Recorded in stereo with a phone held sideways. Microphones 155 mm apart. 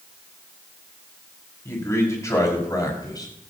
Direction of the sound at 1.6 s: 20° left (ahead or behind).